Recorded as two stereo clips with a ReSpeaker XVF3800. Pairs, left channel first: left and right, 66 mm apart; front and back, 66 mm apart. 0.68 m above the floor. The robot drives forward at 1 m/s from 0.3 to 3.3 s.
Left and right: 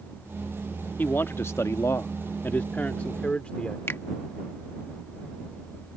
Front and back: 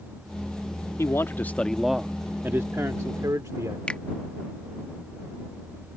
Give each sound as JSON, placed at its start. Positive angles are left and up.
{"t": 1.0, "sound": "a man speaking", "azimuth_deg": 35}
{"t": 3.9, "sound": "a finger snap", "azimuth_deg": 65}